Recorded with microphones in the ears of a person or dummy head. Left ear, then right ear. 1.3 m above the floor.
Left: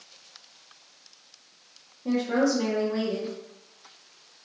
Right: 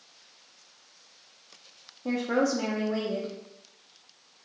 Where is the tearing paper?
I don't hear tearing paper.